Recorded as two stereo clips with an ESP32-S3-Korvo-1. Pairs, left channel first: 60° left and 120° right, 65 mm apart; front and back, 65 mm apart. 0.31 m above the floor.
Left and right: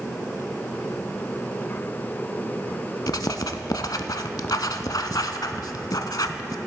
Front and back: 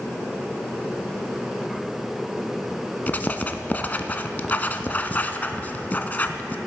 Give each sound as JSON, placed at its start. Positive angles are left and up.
{"t": 3.1, "sound": "writing", "azimuth_deg": 60, "distance_m": 0.5}